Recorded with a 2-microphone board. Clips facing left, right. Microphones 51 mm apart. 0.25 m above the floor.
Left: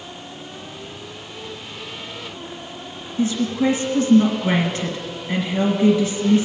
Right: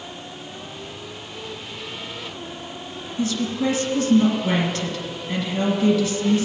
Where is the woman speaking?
25° left (ahead or behind), 2 m.